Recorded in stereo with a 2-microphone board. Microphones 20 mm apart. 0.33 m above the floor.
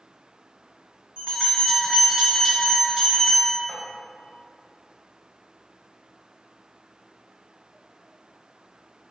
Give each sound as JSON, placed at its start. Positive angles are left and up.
{"t": 1.2, "sound": "a bell", "side_deg": -50, "distance_m": 1.7}
{"t": 3.7, "sound": "tapping", "side_deg": -30, "distance_m": 0.9}